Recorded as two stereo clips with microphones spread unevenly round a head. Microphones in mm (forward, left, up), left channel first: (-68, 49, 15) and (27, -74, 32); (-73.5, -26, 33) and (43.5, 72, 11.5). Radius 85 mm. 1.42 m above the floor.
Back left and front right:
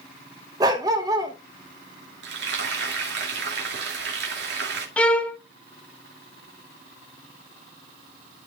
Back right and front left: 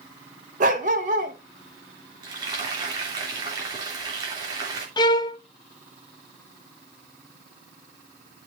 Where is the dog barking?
5° left, 1.1 m.